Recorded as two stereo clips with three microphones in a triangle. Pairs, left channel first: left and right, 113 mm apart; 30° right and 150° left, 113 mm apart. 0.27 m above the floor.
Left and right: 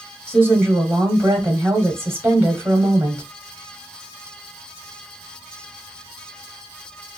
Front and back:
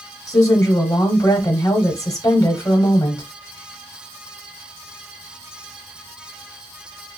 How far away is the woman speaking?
About 1.0 m.